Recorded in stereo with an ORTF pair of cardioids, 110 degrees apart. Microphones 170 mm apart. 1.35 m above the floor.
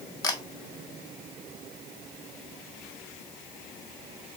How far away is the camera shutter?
About 1.7 m.